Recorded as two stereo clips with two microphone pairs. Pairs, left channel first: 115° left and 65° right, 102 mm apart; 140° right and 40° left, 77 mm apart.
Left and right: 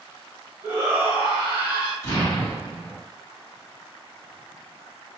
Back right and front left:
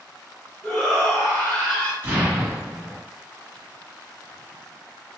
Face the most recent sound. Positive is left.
turn(degrees=75)